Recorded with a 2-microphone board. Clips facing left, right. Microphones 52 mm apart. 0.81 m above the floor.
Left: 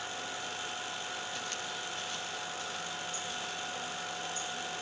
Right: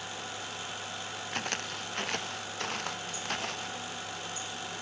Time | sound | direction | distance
1.3 | footsteps | 55° right (ahead or behind) | ?